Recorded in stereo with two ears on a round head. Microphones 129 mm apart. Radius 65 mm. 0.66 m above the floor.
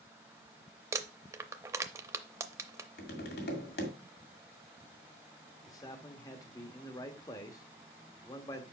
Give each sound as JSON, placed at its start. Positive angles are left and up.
{"t": 0.9, "sound": "crumpling", "side_deg": -20, "distance_m": 0.5}
{"t": 3.0, "sound": "tapping", "side_deg": 80, "distance_m": 1.9}
{"t": 5.7, "sound": "a man speaking", "side_deg": 25, "distance_m": 1.0}